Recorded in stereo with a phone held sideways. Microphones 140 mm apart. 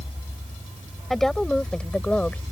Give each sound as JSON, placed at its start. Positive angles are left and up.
{"t": 1.1, "sound": "a woman speaking", "side_deg": 0}